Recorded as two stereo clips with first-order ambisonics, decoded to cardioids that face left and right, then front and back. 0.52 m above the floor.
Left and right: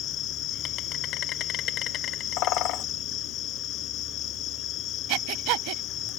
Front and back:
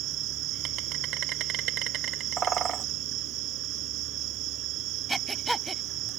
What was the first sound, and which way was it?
An insect, 140° left.